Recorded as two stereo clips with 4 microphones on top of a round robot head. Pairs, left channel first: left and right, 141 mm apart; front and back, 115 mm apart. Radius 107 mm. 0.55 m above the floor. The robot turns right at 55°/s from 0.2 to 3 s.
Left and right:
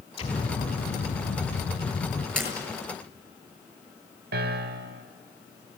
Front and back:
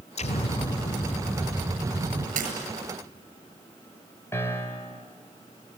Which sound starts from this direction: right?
A piano, at 4.3 s.